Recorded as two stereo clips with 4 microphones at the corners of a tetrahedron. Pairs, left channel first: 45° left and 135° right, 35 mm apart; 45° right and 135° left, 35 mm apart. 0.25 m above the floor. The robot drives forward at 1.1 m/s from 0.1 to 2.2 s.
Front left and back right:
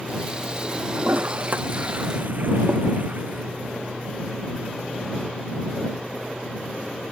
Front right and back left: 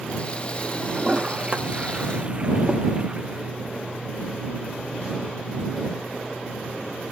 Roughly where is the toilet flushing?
Behind.